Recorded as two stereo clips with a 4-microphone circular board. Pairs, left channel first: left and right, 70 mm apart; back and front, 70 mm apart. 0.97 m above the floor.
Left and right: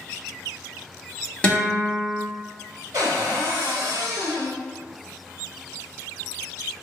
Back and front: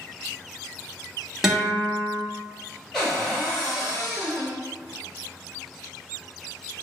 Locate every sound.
1.4 s a guitar: 70° left, 0.8 m
2.9 s a cupboard door: 100° right, 0.8 m